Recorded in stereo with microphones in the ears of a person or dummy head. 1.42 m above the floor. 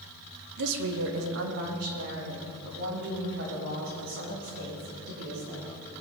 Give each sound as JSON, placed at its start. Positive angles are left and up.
{"t": 0.6, "sound": "a woman speaking", "side_deg": -60, "distance_m": 1.7}